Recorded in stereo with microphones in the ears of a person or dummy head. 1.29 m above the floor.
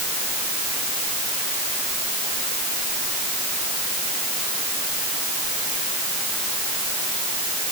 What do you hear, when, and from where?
Only background noise.